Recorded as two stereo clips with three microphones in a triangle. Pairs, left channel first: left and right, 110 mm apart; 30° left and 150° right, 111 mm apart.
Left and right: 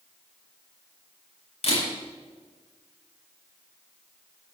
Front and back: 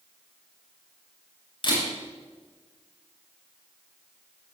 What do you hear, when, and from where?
1.6 s a camera shutter: 70° left, 8 m